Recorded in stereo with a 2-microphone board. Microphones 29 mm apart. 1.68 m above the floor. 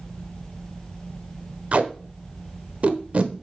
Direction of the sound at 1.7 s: 40° right (ahead or behind).